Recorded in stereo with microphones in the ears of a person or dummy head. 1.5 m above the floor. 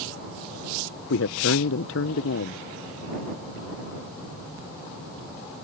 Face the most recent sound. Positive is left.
turn(degrees=70)  # may be behind; listen again after turning